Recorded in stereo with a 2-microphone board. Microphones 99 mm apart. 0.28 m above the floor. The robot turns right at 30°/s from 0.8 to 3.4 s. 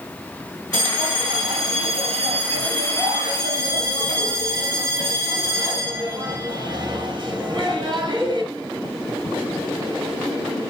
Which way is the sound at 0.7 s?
125° right.